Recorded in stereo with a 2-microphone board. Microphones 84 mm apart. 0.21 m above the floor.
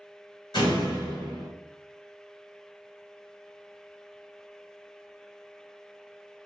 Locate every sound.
0.5 s a door slam: 65° left (ahead or behind), 2.5 m